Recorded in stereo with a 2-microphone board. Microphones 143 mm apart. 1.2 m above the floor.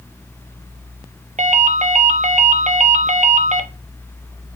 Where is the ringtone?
60° right (ahead or behind), 0.7 m.